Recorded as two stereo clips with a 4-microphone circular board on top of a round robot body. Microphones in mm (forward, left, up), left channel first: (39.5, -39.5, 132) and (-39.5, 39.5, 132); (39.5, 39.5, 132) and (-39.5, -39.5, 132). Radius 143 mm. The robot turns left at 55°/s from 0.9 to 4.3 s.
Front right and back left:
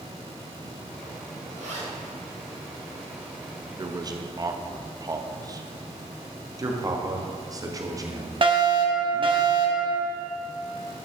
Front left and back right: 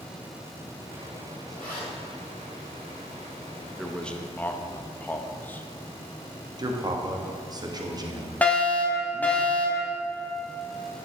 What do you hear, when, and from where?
1.5 s a zipper: 130° left, 3 m; by 1.9 s 105° left, 3 m
3.8 s a man speaking: 135° left, 0.9 m; by 5.7 s 110° left, 0.9 m
6.6 s a man speaking: 175° right, 1.6 m
8.4 s a fire alarm: 120° left, 2.5 m